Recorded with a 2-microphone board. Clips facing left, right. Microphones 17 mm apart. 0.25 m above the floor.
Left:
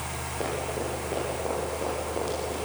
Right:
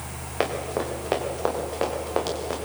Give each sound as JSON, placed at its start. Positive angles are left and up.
{"t": 0.4, "sound": "running footsteps", "side_deg": -85, "distance_m": 7.5}